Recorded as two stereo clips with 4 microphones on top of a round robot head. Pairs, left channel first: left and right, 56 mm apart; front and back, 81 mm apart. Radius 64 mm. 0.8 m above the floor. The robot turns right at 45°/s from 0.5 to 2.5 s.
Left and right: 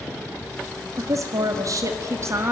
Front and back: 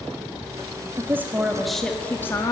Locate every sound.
1.0 s a woman speaking: 120° right, 1.6 m; by 2.5 s 50° right, 1.6 m